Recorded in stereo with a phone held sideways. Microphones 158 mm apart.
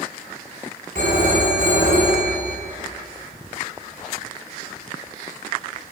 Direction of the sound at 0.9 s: 60° right (ahead or behind).